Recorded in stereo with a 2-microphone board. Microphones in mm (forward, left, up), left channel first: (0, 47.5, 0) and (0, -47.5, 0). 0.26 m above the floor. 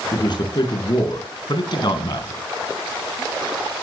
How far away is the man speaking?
About 3.5 m.